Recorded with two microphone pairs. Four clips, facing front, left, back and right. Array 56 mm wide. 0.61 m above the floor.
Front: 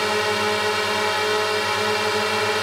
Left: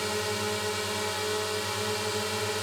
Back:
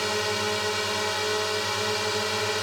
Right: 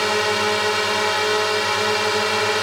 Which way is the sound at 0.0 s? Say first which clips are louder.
Right 11 dB, front 6 dB; 60° right.